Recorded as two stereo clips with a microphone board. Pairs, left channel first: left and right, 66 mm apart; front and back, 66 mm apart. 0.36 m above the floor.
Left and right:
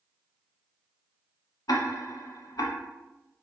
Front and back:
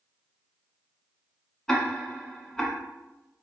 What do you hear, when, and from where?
1.7 s ticking: 80° left, 0.6 m